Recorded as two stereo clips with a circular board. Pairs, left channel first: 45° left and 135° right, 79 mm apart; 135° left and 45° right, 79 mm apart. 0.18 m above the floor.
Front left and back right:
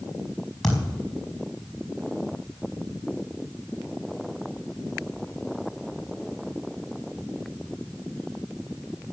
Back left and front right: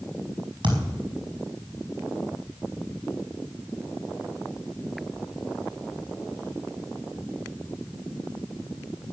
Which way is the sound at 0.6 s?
40° right.